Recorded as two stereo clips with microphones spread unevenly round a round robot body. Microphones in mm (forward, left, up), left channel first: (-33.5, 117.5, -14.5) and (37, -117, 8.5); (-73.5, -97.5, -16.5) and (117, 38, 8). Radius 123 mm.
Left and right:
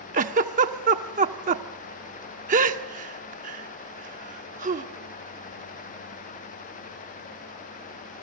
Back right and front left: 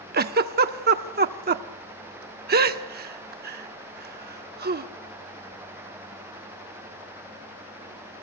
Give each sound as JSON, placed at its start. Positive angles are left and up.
{"t": 0.1, "sound": "a giggle", "azimuth_deg": -15, "distance_m": 1.2}